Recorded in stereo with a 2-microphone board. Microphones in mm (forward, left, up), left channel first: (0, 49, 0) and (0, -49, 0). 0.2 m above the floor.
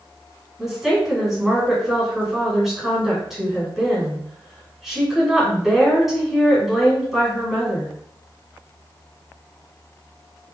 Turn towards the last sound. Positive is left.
turn(degrees=0)  # may be behind; listen again after turning